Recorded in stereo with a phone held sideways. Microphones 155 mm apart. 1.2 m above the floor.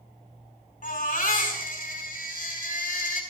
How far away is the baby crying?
About 4.5 m.